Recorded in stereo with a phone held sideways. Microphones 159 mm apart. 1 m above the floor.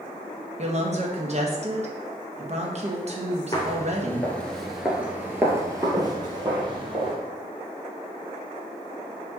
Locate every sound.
0.6 s a woman speaking: 45° right (ahead or behind), 0.8 m
3.5 s footsteps: 25° left (ahead or behind), 1.1 m; by 7.2 s 35° right (ahead or behind), 1.8 m